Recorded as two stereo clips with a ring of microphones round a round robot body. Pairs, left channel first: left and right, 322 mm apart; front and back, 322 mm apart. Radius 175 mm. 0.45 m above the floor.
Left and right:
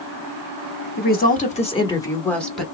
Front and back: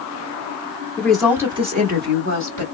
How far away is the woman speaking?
About 1.0 m.